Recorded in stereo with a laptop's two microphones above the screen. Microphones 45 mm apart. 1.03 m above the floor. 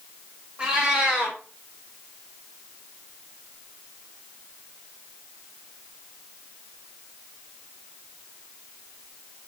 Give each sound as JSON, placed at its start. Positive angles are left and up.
{"t": 0.6, "sound": "a cat meowing", "side_deg": -20, "distance_m": 0.9}